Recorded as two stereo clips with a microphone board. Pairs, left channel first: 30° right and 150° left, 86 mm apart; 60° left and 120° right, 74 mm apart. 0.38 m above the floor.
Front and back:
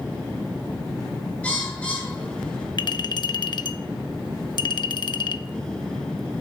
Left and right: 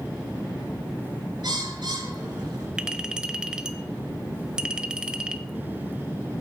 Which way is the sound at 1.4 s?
105° right.